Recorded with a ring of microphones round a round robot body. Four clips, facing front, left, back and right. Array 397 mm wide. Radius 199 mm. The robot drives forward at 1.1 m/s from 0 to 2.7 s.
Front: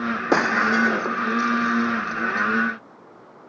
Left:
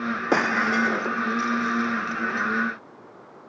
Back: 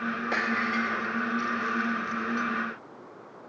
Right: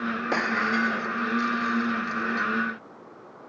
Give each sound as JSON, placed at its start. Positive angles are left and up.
{"t": 0.3, "sound": "breaking glass", "azimuth_deg": 25}